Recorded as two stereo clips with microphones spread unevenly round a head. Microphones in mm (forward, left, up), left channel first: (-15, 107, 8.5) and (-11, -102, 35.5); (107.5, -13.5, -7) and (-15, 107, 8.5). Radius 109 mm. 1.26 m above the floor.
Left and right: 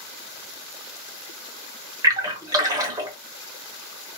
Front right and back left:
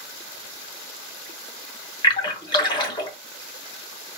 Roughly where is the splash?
Right.